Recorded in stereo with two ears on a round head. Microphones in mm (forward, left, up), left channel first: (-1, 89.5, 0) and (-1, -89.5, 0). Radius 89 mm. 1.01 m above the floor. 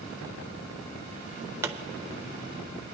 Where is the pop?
15° right (ahead or behind), 0.7 m.